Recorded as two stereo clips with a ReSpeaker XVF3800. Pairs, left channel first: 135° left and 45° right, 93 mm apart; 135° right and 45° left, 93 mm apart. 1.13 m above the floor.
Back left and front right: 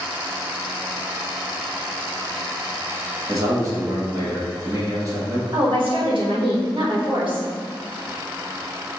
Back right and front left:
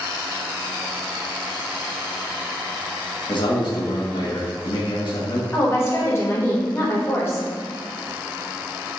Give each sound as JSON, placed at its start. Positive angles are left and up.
{"t": 3.3, "sound": "a man speaking", "azimuth_deg": -100, "distance_m": 0.9}
{"t": 5.5, "sound": "a woman speaking", "azimuth_deg": -70, "distance_m": 1.3}